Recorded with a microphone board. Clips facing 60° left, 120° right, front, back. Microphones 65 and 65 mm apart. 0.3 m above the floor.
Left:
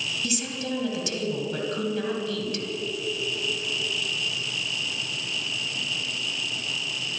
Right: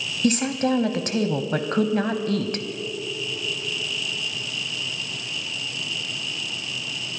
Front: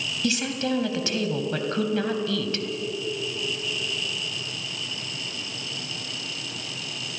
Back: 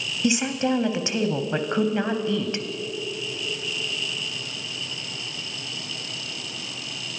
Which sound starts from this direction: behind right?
A woman speaking, at 0.2 s.